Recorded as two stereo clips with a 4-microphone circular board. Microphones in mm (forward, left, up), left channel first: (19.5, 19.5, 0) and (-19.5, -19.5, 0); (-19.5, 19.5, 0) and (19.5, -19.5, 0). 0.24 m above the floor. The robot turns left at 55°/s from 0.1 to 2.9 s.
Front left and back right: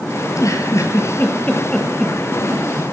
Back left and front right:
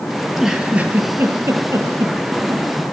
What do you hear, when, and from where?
0.2 s a giggle: 50° left, 5.5 m; by 2.7 s 85° right, 5.5 m